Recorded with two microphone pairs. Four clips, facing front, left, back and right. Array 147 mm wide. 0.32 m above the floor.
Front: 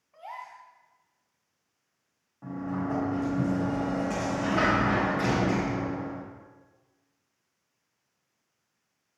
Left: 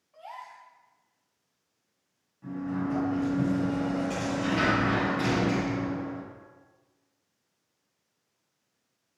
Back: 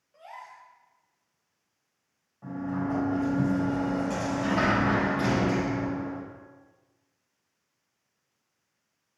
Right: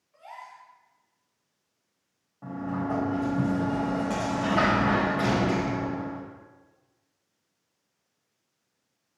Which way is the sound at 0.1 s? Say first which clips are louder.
Left 1 dB, front 3 dB; 20° left.